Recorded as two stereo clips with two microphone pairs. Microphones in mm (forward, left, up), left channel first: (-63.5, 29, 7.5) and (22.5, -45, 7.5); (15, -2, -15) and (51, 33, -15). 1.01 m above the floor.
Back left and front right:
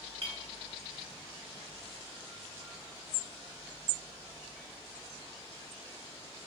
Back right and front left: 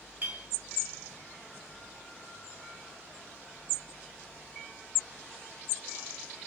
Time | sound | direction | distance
0.2 | a clink | 5° right | 1.2 m